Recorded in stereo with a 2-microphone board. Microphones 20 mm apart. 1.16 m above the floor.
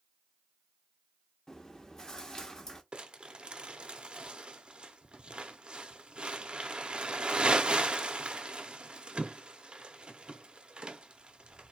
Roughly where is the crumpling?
Right.